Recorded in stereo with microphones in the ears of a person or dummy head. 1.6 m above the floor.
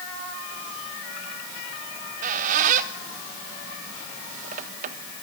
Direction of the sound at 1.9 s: 40° right (ahead or behind).